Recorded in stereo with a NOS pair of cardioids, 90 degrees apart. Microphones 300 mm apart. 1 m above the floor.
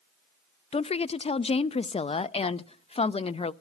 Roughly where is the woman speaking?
Ahead.